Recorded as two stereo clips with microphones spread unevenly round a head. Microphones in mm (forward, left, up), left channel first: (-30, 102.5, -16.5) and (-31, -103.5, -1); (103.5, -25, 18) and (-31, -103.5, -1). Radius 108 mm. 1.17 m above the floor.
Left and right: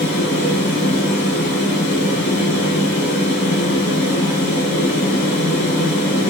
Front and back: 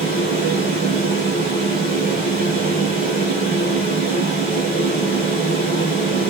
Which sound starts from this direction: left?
A fan, at 0.0 s.